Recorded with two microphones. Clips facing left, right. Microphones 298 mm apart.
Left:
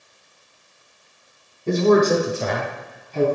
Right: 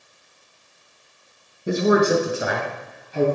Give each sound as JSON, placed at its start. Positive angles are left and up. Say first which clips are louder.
{"t": 1.7, "sound": "a man speaking", "louder": "left 2 dB", "side_deg": -10, "distance_m": 1.0}